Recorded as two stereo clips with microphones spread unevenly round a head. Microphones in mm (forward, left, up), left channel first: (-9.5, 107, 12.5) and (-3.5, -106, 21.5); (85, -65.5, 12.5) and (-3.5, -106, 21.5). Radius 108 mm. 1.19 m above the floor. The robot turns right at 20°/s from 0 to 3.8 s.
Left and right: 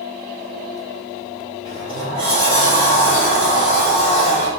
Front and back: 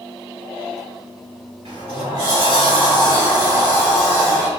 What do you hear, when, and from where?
1.6 s a sliding door: 140° right, 1.8 m; by 4.5 s 100° right, 1.8 m